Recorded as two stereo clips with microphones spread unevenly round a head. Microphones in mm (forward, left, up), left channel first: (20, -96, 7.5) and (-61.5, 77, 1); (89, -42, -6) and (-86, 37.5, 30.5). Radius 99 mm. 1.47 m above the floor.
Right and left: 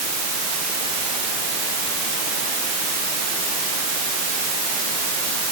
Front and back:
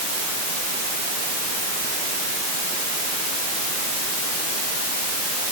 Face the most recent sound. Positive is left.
No sound to turn to.